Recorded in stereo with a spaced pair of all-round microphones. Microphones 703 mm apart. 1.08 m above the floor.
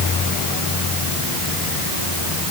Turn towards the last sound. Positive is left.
No sound to turn to.